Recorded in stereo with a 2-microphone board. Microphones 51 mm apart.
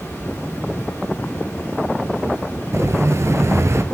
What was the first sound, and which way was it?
Running water, 65° left (ahead or behind).